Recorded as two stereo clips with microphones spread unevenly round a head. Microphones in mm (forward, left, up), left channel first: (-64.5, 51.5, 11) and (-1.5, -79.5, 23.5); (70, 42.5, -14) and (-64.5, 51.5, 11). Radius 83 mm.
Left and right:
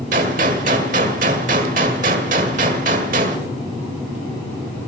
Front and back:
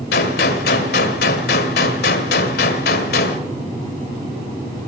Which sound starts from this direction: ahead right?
A gunshot, at 0.1 s.